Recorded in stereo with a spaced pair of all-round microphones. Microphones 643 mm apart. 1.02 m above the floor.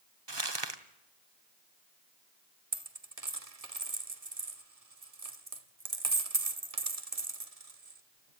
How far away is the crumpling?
About 1.5 m.